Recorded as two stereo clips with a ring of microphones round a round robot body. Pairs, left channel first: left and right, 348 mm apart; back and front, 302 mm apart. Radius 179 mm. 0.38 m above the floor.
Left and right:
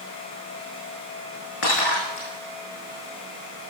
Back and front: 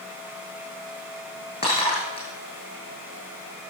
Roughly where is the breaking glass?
Left.